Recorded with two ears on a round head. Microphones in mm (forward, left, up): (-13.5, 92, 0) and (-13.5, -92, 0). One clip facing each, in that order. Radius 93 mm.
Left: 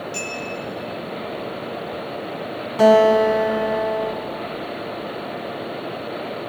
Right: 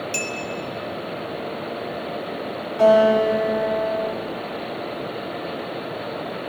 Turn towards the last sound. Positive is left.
turn(degrees=65)  # may be behind; listen again after turning